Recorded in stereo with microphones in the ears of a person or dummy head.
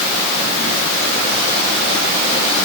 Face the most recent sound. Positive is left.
No sound to turn to.